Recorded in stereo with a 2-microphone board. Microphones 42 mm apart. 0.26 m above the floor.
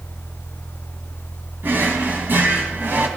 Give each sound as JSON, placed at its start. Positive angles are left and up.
{"t": 1.6, "sound": "a drawer", "side_deg": -55, "distance_m": 1.2}